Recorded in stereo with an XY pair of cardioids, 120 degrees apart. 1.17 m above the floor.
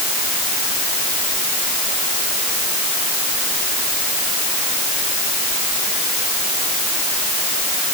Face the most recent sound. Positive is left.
No sound to turn to.